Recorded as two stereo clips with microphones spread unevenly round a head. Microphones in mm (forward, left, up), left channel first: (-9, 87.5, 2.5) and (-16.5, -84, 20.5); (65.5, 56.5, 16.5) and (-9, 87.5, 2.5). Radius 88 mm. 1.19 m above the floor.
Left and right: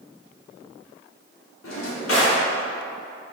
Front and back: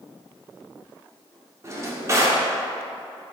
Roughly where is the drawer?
Left.